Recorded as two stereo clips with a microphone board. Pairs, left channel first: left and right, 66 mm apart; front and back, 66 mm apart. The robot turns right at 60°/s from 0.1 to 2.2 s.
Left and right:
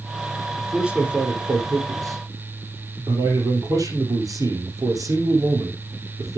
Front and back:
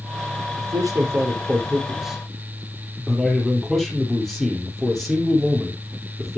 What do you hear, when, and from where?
0.6 s a man speaking: 175° left, 3.5 m; by 6.4 s 85° right, 3.5 m